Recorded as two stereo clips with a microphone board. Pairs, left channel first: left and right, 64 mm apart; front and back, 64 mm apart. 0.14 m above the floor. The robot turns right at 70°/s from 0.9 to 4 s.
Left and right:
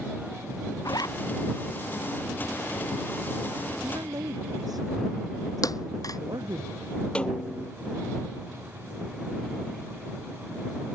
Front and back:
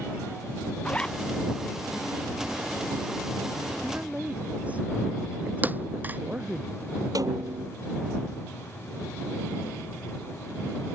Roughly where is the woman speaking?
Behind right.